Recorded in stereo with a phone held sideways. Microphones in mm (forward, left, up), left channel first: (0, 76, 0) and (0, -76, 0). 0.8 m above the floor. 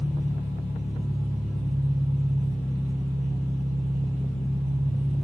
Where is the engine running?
60° left (ahead or behind), 1.1 m.